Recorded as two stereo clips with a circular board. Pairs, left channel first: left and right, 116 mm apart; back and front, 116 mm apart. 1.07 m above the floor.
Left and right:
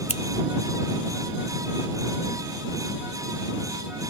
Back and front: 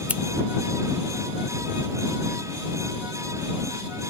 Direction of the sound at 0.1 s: 75° left.